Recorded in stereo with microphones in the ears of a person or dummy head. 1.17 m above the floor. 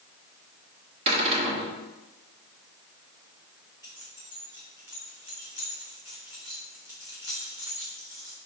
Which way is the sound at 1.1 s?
30° right (ahead or behind).